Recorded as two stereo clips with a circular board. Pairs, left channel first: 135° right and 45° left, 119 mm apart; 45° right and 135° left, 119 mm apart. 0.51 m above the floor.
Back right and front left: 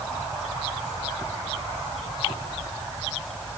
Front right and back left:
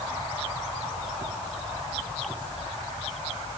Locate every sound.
Only background noise.